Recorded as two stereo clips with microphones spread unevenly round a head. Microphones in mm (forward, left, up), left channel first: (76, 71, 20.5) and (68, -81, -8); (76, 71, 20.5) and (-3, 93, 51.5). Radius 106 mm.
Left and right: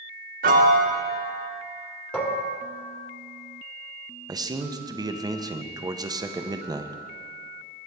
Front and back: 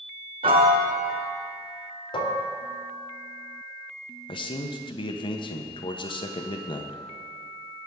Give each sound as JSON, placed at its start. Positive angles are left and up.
{"t": 0.4, "sound": "a piano", "azimuth_deg": -140, "distance_m": 0.5}
{"t": 2.1, "sound": "dishes clattering", "azimuth_deg": 5, "distance_m": 1.8}
{"t": 4.3, "sound": "a man speaking", "azimuth_deg": -30, "distance_m": 0.9}